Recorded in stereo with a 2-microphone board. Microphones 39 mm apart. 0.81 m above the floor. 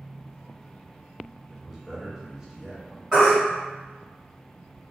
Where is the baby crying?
20° right (ahead or behind), 1.4 m.